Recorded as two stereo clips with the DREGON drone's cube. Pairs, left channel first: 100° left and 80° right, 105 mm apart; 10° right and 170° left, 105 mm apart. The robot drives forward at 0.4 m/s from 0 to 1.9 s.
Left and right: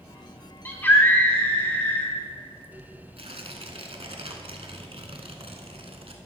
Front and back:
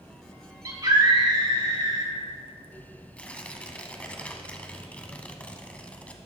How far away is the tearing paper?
About 0.9 m.